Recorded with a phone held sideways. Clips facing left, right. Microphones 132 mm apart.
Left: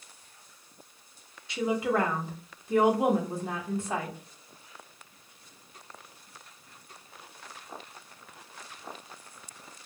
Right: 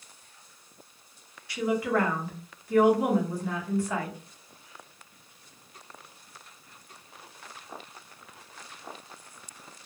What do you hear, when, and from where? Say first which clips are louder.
1.5 s a woman speaking: right 1 dB; 20° left (ahead or behind), 0.9 m